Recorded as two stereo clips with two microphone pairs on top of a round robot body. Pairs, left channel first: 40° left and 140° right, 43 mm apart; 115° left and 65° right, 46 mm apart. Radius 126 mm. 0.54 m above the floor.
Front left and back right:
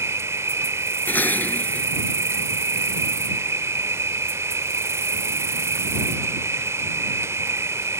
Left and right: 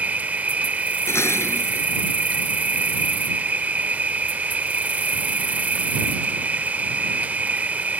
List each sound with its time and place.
0.0 s an insect: 125° right
1.1 s dishes clattering: 90° left